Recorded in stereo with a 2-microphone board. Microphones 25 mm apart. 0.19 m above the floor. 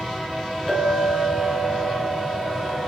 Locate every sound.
0.7 s a clink: 5° left (ahead or behind), 2.0 m